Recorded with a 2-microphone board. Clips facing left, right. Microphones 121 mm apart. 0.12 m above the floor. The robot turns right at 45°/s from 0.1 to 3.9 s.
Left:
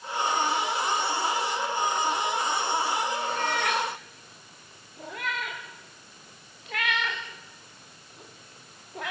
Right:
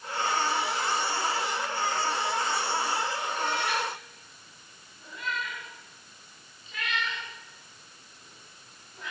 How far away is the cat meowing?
About 2.5 m.